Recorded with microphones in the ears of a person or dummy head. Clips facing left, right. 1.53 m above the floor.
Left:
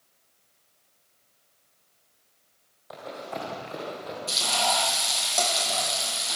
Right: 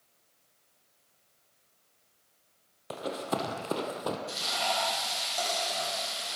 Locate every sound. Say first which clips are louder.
2.9 s running footsteps: right 3 dB; 40° right (ahead or behind), 2.5 m; by 4.2 s 55° right (ahead or behind), 3 m
4.3 s frying: left 5 dB; 75° left (ahead or behind), 9 m